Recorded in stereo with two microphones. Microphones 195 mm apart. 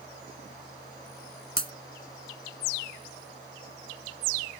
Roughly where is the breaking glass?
Right.